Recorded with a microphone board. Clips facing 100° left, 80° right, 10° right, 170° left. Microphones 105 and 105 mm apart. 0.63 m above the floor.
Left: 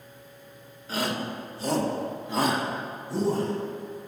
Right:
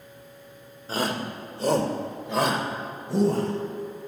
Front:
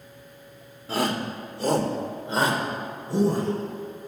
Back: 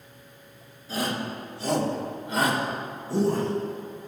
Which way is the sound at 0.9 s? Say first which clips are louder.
Right 1 dB, front 3 dB; 30° right.